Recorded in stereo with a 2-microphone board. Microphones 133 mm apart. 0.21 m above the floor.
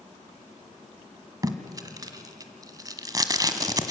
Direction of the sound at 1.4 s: 25° right (ahead or behind).